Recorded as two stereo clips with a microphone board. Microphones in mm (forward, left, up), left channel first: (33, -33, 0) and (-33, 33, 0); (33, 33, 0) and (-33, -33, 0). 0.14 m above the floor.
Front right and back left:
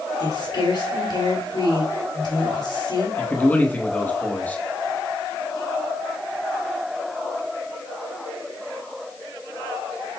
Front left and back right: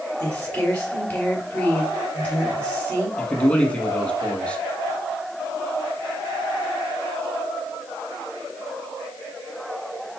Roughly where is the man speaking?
Ahead.